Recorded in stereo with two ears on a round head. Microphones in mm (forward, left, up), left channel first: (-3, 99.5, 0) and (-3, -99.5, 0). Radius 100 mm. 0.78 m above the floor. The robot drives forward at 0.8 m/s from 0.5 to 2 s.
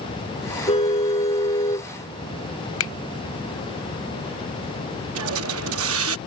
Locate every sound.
0.7 s a car horn: 25° left (ahead or behind); by 1.9 s 20° left (ahead or behind)
2.8 s a finger snap: 65° left (ahead or behind)
5.2 s a hiss: 70° right (ahead or behind)